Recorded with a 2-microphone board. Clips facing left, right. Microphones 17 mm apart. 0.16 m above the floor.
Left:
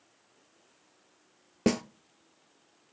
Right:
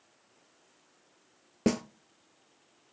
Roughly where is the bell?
No bell in this recording.